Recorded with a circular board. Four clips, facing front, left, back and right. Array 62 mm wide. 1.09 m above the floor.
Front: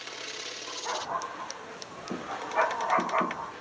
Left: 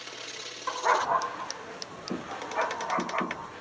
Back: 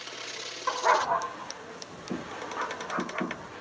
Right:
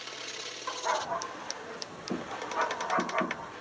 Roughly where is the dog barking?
Behind left.